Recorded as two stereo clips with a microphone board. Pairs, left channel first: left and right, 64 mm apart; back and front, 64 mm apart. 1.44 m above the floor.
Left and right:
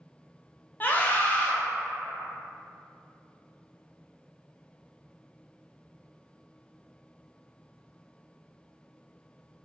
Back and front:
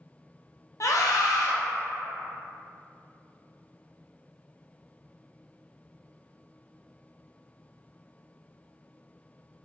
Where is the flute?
I don't hear a flute.